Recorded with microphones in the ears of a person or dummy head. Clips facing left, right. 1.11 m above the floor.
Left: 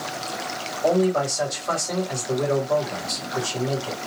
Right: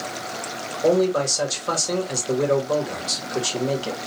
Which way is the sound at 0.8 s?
45° right (ahead or behind).